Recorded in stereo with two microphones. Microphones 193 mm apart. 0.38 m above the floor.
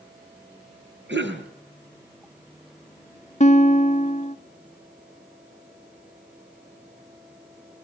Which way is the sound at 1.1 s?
75° right (ahead or behind).